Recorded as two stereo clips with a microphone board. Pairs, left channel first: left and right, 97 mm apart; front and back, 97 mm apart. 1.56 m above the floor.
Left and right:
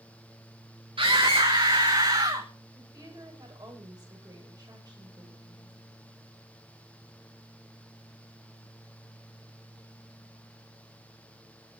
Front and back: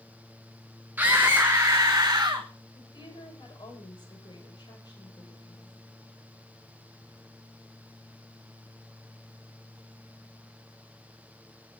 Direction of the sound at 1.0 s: 110° right.